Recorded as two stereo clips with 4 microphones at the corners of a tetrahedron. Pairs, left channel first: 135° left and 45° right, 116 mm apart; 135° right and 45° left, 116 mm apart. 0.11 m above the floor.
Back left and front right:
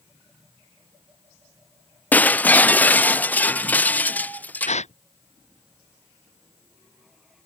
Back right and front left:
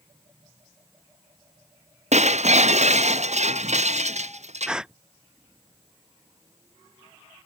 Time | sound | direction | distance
2.1 | breaking glass | 60° left | ?
4.7 | a gasp | 130° left | ?